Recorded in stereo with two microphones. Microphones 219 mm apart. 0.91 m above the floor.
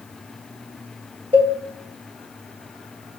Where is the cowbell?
25° right (ahead or behind), 1.2 m.